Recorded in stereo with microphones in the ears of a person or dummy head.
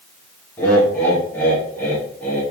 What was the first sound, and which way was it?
Laughter, 10° left (ahead or behind).